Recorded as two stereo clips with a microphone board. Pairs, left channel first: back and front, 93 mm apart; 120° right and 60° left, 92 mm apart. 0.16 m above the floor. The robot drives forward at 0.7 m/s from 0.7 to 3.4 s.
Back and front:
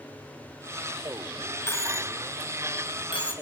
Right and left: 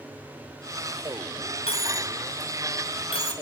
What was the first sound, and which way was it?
A dropped coin, 120° right.